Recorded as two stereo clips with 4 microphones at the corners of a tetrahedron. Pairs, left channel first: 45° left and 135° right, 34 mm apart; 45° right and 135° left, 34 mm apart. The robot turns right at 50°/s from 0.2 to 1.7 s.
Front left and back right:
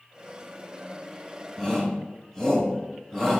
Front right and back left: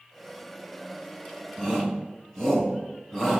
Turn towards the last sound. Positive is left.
turn(degrees=10)